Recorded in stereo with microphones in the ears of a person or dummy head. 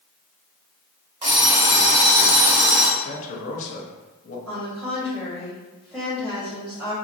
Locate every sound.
1.2 s an alarm clock: 25° right (ahead or behind), 1.0 m
3.0 s a man speaking: 40° left (ahead or behind), 0.6 m
4.5 s a woman speaking: 10° right (ahead or behind), 1.7 m